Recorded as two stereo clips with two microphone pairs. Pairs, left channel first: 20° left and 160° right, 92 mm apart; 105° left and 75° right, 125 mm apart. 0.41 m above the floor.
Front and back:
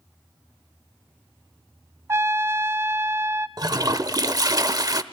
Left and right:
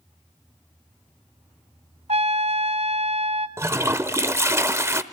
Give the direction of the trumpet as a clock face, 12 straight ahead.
3 o'clock.